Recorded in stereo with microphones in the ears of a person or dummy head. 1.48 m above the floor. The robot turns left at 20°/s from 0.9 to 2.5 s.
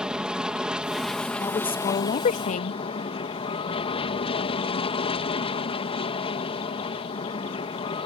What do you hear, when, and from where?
0.0 s an aircraft: 175° right; by 8.1 s 150° left
1.4 s a woman speaking: 20° left (ahead or behind); by 2.8 s 40° left (ahead or behind)